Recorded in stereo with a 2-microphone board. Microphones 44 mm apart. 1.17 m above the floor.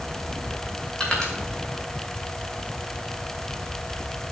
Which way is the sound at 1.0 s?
20° left (ahead or behind).